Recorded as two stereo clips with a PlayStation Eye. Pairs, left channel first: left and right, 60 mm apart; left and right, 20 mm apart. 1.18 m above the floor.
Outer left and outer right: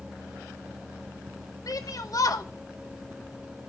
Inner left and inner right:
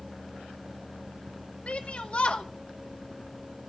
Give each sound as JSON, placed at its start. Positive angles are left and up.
{"t": 1.7, "sound": "a shout", "side_deg": 80, "distance_m": 2.5}